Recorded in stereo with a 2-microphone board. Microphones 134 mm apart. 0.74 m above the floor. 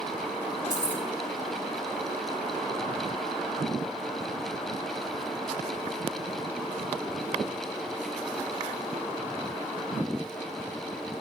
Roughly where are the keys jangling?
Right.